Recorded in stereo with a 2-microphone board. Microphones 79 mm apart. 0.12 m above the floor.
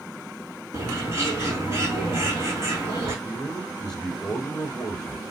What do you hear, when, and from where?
0.7 s a bird: 35° right (ahead or behind), 4 m
3.2 s a man speaking: 10° left (ahead or behind), 2 m